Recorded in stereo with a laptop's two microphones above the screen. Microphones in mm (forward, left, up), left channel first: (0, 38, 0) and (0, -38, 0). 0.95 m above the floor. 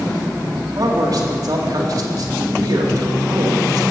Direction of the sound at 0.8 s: 50° right (ahead or behind).